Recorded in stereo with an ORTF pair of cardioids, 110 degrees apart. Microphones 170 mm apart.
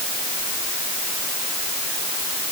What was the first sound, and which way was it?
Only background noise.